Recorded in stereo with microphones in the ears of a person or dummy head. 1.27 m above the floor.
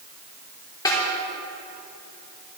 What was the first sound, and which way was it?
A snare drum, 20° left (ahead or behind).